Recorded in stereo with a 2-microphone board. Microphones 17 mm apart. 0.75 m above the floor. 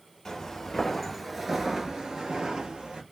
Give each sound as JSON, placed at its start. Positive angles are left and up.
{"t": 0.2, "sound": "footsteps", "side_deg": 35, "distance_m": 1.2}